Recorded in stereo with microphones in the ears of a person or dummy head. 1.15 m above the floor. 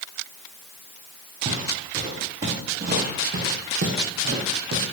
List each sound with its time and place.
1.4 s footsteps: 35° right (ahead or behind), 4.5 m; by 4.8 s 70° right (ahead or behind), 4 m